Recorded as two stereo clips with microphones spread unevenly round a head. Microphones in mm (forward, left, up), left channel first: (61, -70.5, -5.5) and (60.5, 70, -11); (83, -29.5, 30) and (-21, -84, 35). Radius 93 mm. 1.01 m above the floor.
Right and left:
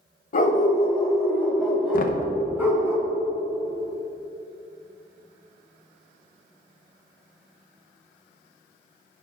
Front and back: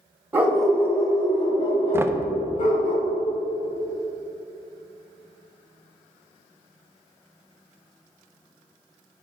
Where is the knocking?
80° right, 0.7 m.